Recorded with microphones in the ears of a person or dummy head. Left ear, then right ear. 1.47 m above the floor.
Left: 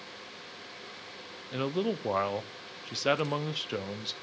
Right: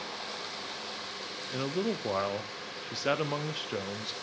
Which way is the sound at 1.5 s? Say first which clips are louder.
Left 2 dB; 10° left (ahead or behind).